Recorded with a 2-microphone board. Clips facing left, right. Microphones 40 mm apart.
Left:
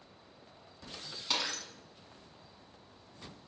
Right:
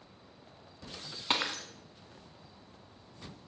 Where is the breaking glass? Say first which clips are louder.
Right 3 dB; 35° right (ahead or behind), 1.2 m.